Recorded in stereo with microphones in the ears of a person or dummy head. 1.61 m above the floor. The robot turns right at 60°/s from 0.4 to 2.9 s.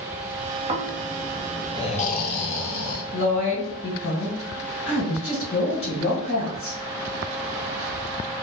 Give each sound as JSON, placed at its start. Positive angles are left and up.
{"t": 0.7, "sound": "snoring", "azimuth_deg": -35, "distance_m": 0.7}
{"t": 3.1, "sound": "a woman speaking", "side_deg": 60, "distance_m": 1.6}